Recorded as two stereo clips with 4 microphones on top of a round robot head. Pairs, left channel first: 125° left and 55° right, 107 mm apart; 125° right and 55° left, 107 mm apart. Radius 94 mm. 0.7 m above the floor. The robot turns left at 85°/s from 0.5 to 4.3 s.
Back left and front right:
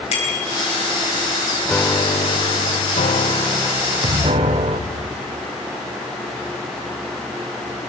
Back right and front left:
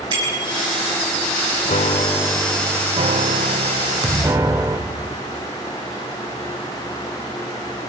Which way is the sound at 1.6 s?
150° right.